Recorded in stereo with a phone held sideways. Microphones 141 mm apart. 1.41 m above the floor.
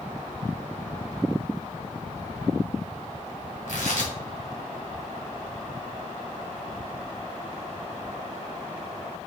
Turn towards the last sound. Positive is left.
turn(degrees=80)